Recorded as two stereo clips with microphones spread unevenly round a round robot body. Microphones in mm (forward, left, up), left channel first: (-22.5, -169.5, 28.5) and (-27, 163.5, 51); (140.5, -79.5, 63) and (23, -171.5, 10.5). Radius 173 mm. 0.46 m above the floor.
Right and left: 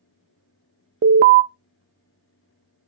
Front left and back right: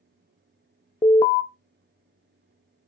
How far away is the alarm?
About 0.6 m.